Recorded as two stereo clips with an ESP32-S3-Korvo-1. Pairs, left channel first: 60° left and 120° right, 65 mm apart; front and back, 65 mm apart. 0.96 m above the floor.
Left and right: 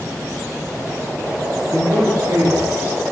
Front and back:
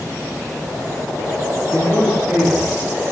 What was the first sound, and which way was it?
A man speaking, 90° right.